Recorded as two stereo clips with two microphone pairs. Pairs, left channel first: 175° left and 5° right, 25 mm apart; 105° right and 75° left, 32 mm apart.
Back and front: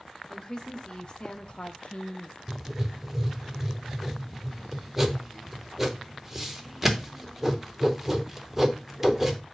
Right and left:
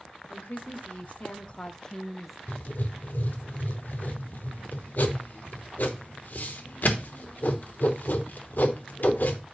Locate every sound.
0.3 s a woman speaking: 120° right, 1.5 m; by 2.4 s 160° left, 0.8 m
2.5 s writing: 80° right, 0.9 m